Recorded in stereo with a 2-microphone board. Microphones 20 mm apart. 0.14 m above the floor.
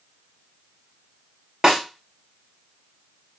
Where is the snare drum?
35° right (ahead or behind), 2 m.